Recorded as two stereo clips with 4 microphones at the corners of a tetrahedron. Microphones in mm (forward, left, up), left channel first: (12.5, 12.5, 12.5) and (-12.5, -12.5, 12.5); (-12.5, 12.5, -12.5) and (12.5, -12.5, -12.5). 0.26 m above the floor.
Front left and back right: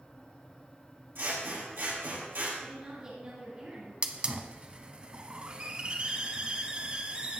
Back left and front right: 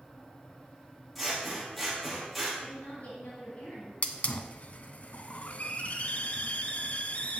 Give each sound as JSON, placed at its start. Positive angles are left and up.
{"t": 1.1, "sound": "scissors", "azimuth_deg": -135, "distance_m": 4.5}
{"t": 2.6, "sound": "a woman speaking", "azimuth_deg": 170, "distance_m": 4.0}
{"t": 4.0, "sound": "a hiss", "azimuth_deg": 170, "distance_m": 0.8}